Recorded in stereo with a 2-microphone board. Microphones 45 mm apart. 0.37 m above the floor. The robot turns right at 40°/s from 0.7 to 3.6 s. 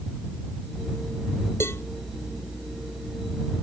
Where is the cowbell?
80° left; by 1.8 s 75° left (ahead or behind).